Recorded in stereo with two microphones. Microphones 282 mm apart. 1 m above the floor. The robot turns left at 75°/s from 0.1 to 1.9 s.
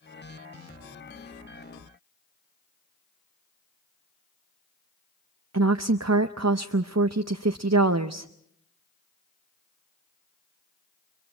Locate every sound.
5.5 s a woman speaking: 60° right (ahead or behind), 0.6 m